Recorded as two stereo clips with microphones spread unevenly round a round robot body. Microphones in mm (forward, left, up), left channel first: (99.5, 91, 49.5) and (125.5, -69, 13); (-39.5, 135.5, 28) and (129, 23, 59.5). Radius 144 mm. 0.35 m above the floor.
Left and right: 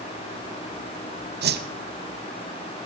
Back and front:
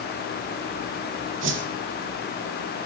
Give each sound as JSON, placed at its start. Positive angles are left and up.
{"t": 1.4, "sound": "a whoosh", "azimuth_deg": -80, "distance_m": 1.0}